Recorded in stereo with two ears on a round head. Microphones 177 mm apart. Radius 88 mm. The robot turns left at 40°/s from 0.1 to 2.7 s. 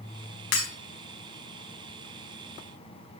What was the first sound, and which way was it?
Breaking glass, 60° left (ahead or behind).